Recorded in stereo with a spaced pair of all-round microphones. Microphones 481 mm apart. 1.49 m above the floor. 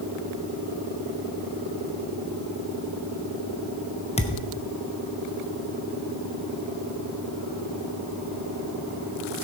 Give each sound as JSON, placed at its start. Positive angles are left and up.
{"t": 4.2, "sound": "a thud", "side_deg": 15, "distance_m": 0.8}